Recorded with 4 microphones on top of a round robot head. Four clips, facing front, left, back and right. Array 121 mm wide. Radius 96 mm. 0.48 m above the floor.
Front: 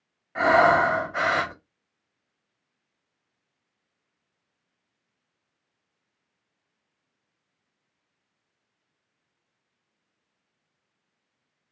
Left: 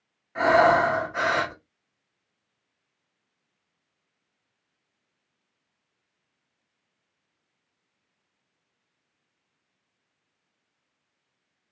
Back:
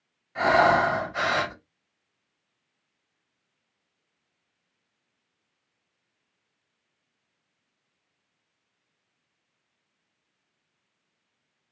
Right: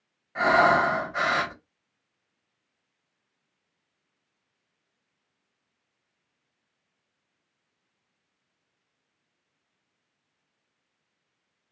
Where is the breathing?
5° right, 1.5 m.